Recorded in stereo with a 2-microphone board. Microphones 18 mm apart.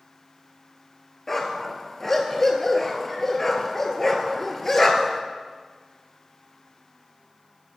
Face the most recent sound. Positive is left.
turn(degrees=20)  # may be behind; listen again after turning